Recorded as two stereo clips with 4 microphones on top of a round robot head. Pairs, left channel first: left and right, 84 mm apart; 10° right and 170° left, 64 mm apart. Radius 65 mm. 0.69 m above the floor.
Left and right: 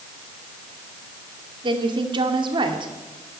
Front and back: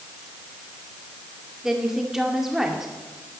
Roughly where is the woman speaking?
Right.